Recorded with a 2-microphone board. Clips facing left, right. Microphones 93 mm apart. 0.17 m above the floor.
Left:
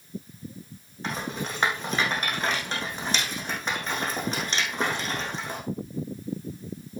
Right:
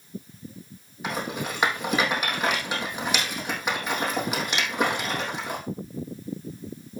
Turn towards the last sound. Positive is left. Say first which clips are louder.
# right 2 dB
turn(degrees=-10)  # may be behind; listen again after turning